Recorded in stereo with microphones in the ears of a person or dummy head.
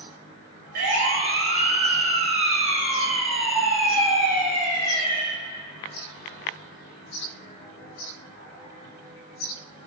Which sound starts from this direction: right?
A siren, at 0.8 s.